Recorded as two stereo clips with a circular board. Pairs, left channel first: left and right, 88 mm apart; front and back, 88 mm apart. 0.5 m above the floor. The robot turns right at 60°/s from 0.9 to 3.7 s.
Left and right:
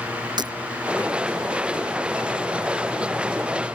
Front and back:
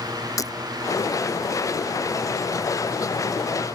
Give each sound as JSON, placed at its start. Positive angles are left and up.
{"t": 0.4, "sound": "breaking glass", "azimuth_deg": -50}